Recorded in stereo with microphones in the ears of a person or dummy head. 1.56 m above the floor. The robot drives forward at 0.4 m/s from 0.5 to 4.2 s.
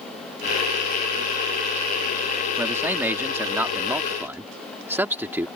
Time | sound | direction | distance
2.6 | a man speaking | 10° right (ahead or behind) | ?